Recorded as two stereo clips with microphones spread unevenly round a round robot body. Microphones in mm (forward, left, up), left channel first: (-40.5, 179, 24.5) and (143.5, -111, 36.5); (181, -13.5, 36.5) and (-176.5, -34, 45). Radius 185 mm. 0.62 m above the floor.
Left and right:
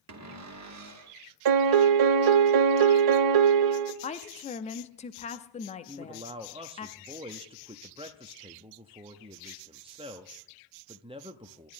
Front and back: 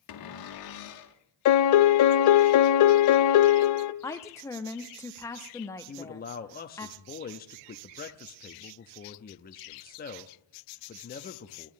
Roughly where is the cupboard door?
Ahead.